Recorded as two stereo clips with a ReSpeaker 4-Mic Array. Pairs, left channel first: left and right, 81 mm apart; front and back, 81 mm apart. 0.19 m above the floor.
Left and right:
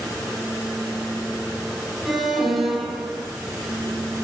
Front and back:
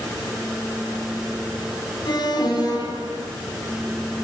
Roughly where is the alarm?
Ahead.